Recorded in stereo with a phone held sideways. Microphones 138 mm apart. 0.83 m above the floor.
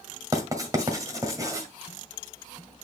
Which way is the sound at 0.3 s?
25° right (ahead or behind).